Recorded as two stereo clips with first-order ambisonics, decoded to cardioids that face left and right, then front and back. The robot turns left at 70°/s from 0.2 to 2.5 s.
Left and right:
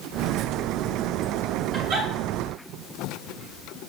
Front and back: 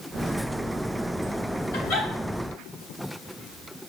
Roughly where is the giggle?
Ahead right.